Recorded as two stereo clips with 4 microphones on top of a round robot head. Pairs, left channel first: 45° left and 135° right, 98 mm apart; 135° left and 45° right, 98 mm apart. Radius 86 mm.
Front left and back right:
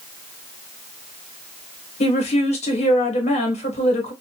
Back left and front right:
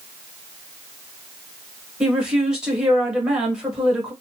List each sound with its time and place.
2.0 s a woman speaking: 40° left, 1.1 m